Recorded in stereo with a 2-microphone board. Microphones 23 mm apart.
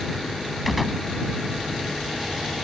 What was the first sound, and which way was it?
A gunshot, centre (ahead or behind).